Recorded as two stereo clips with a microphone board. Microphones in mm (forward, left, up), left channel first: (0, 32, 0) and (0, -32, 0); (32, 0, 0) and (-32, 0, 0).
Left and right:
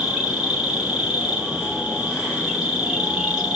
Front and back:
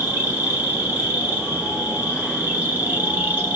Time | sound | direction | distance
0.0 | an insect | 150° right | 1.5 m